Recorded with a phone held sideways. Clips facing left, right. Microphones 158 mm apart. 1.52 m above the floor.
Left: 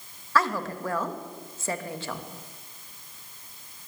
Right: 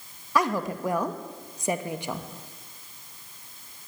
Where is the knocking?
No knocking in this recording.